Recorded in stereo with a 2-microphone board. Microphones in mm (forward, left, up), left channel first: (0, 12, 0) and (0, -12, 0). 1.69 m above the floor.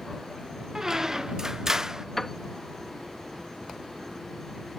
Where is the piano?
15° left (ahead or behind).